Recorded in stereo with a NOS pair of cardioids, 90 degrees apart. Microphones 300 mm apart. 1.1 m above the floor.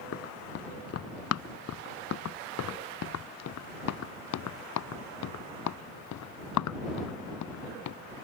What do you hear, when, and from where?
0.1 s running footsteps: 50° left; by 8.0 s 70° left